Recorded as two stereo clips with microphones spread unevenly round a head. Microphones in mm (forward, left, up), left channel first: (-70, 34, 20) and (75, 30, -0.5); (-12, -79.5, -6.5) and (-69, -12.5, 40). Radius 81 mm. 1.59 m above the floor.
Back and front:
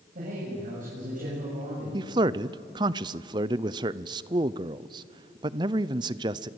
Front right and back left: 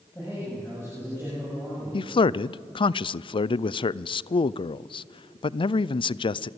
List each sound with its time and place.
0.1 s a man speaking: 30° left, 7.5 m
1.9 s a man speaking: 65° right, 0.5 m